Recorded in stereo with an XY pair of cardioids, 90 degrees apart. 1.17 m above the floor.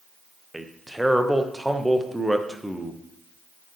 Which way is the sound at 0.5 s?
5° right.